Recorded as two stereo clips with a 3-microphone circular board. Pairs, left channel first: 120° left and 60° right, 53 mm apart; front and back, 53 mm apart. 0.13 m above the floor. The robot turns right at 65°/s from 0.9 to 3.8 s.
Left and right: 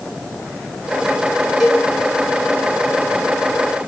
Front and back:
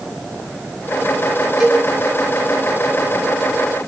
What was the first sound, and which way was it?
A cowbell, 135° right.